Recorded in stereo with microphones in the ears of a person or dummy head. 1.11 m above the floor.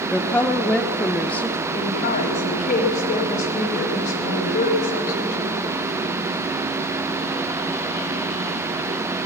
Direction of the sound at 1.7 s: 45° left (ahead or behind).